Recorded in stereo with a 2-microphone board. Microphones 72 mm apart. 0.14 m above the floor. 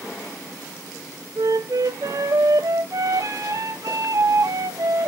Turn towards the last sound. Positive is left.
turn(degrees=-55)  # may be behind; listen again after turning